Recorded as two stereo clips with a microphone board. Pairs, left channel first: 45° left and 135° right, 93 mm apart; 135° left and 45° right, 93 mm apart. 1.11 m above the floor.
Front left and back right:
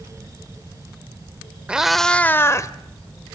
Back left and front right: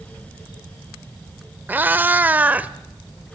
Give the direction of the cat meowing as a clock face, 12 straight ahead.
3 o'clock.